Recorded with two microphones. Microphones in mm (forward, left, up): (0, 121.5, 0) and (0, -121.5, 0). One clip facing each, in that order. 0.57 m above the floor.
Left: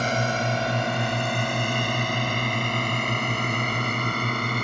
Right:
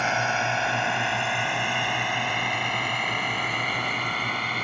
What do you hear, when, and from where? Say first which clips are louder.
0.0 s a drone: left 3 dB; 40° left (ahead or behind); by 4.7 s 50° left (ahead or behind)